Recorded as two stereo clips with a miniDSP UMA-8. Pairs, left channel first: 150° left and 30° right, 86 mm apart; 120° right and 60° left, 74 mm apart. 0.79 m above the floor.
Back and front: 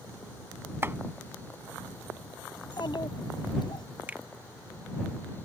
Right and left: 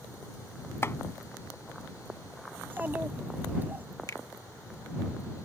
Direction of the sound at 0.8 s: 85° right.